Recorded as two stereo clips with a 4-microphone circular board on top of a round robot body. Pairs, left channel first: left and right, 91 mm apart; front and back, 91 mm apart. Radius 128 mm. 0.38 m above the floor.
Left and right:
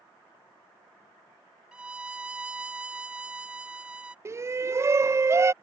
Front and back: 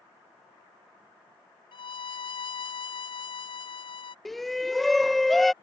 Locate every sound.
1.7 s a violin: 10° right
4.2 s a shout: 85° right